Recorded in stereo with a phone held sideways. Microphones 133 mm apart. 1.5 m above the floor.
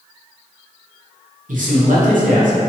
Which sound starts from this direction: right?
A man speaking, at 1.5 s.